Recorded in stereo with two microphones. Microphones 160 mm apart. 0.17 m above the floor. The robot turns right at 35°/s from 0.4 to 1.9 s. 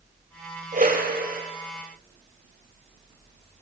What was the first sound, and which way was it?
A whoosh, 60° right (ahead or behind).